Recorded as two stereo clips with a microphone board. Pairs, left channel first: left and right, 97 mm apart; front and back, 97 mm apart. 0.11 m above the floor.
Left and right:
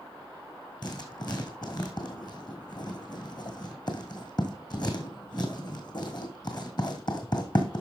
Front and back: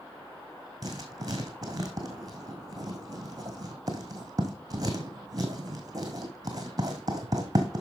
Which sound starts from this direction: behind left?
Writing, at 0.8 s.